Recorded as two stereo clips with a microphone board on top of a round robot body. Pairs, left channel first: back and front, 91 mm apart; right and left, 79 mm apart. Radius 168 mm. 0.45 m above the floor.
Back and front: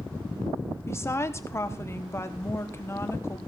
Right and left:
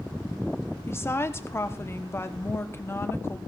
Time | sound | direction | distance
0.9 | a woman speaking | 135° right | 1.1 m